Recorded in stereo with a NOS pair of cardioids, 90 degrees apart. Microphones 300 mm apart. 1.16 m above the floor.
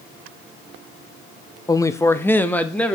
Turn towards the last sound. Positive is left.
turn(degrees=5)